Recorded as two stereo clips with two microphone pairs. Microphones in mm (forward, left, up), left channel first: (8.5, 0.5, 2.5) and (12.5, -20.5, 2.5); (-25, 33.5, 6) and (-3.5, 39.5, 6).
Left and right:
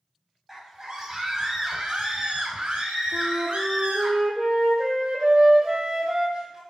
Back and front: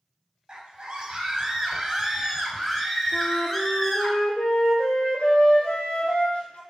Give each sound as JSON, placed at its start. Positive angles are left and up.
{"t": 0.5, "sound": "a scream", "azimuth_deg": -20, "distance_m": 2.0}
{"t": 3.1, "sound": "a flute", "azimuth_deg": -140, "distance_m": 1.6}